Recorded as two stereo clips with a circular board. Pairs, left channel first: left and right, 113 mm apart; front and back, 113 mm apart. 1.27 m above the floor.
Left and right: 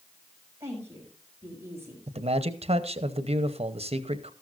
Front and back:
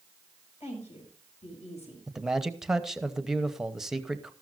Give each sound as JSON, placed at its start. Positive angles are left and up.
{"t": 0.6, "sound": "a woman speaking", "azimuth_deg": -20, "distance_m": 6.5}
{"t": 2.1, "sound": "a man speaking", "azimuth_deg": -95, "distance_m": 0.9}